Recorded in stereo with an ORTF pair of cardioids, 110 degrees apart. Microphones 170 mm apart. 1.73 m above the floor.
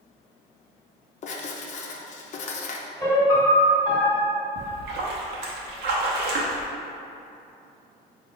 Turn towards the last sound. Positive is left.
turn(degrees=-70)